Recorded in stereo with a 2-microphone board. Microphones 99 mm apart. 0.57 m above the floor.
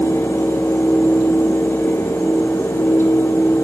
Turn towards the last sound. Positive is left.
No sound to turn to.